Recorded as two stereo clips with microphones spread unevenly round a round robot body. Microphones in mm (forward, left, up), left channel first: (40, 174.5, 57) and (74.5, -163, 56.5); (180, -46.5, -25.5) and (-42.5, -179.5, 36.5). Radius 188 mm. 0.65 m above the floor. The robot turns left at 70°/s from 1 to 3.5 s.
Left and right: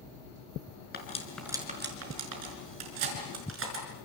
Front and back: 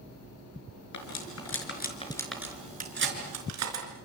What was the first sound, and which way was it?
Cutlery clinking, 35° left.